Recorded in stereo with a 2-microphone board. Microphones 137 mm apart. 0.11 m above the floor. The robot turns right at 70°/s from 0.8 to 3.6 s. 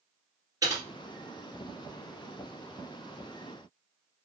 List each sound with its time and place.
0.6 s typing on a keyboard: 25° right (ahead or behind), 2.0 m; by 0.8 s 30° right (ahead or behind), 2.0 m